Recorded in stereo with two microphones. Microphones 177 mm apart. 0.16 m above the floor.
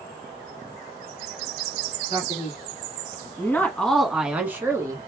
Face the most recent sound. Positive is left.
turn(degrees=-20)  # may be behind; listen again after turning